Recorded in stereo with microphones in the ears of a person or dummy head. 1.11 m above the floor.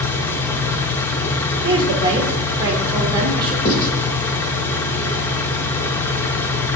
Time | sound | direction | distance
0.0 | an engine running | 15° left (ahead or behind) | 0.7 m
1.6 | a woman speaking | 25° right (ahead or behind) | 1.3 m
3.6 | writing | 35° left (ahead or behind) | 2.5 m